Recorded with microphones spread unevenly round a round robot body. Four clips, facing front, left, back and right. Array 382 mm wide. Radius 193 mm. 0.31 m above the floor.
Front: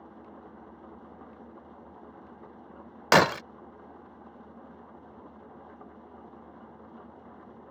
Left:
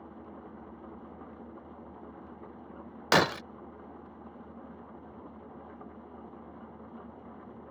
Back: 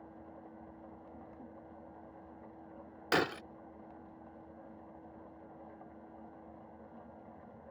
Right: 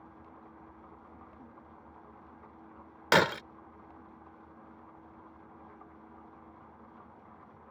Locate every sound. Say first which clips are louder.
0.0 s an engine running: left 6 dB, front 4 dB; 70° left
3.1 s breaking glass: even, front 11 dB; 10° right